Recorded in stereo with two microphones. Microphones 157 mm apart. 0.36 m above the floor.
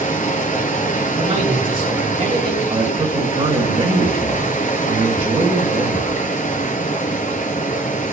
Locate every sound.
0.0 s running water: 60° left (ahead or behind), 1.5 m
1.2 s a man speaking: 45° right (ahead or behind), 2.5 m
2.7 s a man speaking: 45° right (ahead or behind), 1.6 m